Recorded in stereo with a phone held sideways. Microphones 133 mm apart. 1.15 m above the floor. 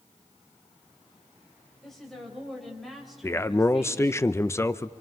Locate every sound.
1.8 s a woman speaking: 5° left (ahead or behind), 5 m; by 4.2 s 5° right (ahead or behind), 4 m
3.2 s a man speaking: 20° left (ahead or behind), 0.6 m